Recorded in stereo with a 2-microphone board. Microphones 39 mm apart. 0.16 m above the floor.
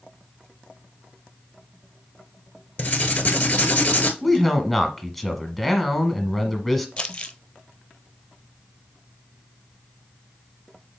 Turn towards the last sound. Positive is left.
turn(degrees=30)  # may be behind; listen again after turning